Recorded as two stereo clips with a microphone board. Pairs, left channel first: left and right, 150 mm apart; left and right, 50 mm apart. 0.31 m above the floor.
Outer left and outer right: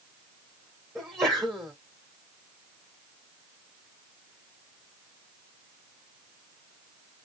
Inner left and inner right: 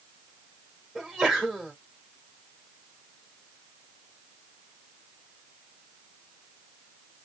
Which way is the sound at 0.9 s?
Centre (ahead or behind).